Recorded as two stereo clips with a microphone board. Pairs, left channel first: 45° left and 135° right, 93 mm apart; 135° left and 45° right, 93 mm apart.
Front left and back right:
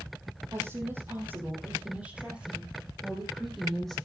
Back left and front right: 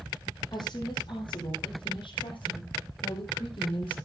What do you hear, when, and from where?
0.5 s a woman speaking: 165° left, 5.5 m; by 4.0 s 135° left, 6.5 m